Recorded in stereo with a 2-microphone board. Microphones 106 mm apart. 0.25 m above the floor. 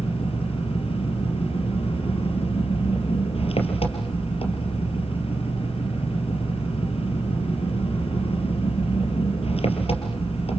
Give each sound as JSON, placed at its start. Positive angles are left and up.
{"t": 0.0, "sound": "an engine running", "side_deg": 70, "distance_m": 4.0}